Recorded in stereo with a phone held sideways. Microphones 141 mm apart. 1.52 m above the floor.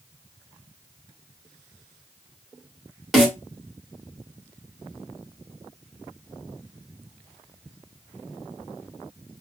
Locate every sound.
3.1 s a snare drum: centre (ahead or behind), 2 m